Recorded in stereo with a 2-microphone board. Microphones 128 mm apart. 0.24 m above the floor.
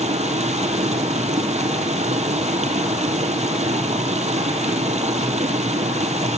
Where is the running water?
65° right (ahead or behind), 1.1 m.